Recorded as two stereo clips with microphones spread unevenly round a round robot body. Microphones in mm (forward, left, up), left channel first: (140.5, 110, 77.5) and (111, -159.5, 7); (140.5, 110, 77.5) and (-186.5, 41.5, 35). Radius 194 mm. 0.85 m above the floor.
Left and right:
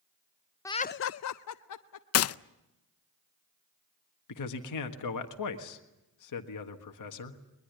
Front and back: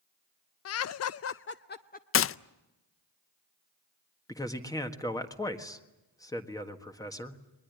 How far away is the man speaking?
About 1.8 m.